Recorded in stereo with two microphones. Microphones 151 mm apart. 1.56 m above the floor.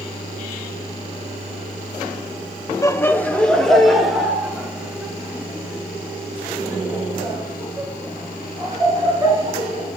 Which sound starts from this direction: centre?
Laughter, at 2.8 s.